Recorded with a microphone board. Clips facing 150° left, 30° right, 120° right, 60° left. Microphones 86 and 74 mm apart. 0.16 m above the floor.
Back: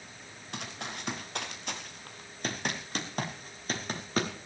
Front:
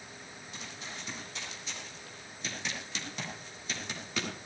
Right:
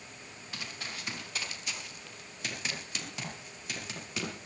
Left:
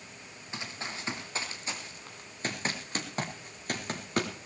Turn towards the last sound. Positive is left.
turn(degrees=100)